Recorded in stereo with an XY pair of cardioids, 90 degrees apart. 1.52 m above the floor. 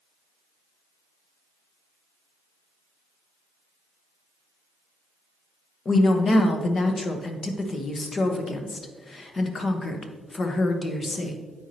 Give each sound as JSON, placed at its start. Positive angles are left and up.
{"t": 5.8, "sound": "a woman speaking", "azimuth_deg": 45, "distance_m": 1.0}